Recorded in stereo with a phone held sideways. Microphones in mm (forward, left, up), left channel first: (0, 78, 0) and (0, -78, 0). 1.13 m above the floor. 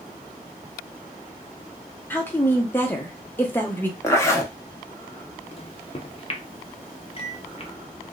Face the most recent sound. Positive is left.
turn(degrees=40)  # may be behind; listen again after turning